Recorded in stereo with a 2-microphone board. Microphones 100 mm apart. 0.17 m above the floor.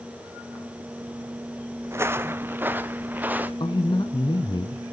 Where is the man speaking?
50° left (ahead or behind), 1.5 m.